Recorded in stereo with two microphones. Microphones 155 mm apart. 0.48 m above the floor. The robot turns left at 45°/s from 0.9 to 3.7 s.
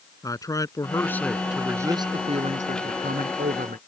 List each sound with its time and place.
0.2 s a man speaking: 20° left; by 3.8 s 105° right